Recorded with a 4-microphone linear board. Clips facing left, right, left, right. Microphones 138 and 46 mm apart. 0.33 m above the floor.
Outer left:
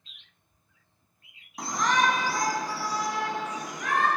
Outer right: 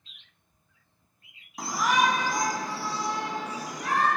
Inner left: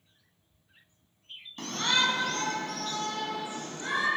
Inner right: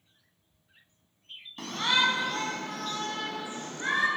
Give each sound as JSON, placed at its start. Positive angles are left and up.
{"t": 1.6, "sound": "a shout", "side_deg": 0, "distance_m": 2.5}